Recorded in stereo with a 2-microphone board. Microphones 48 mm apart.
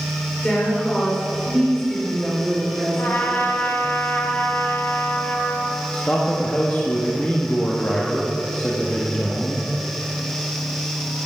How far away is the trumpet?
About 1.6 m.